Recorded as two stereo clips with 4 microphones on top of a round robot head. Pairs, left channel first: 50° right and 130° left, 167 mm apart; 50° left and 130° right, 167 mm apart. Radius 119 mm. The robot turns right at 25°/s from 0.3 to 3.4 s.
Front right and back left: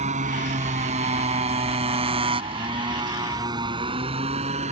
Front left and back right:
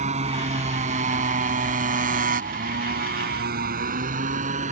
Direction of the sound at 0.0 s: Straight behind.